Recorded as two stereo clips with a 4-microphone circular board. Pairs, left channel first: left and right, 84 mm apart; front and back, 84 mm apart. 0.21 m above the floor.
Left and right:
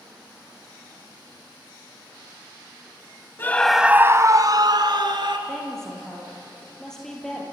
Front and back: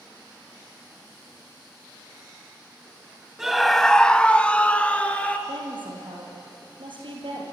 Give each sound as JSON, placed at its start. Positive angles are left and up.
{"t": 3.4, "sound": "a scream", "azimuth_deg": 100, "distance_m": 1.0}
{"t": 5.5, "sound": "a woman speaking", "azimuth_deg": 175, "distance_m": 5.5}